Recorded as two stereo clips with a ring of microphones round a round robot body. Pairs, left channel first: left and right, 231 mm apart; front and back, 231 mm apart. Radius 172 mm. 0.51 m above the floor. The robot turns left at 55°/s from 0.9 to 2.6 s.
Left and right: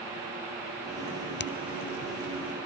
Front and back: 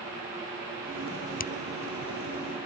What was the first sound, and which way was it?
A finger snap, 50° left.